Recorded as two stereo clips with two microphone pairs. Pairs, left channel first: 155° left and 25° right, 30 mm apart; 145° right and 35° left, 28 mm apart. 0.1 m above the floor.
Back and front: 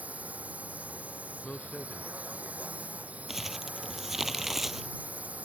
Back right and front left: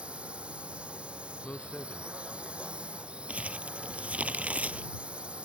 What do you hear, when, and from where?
0.0 s a drone: 5° right
1.4 s a man speaking: 175° right
3.3 s crumpling: 55° left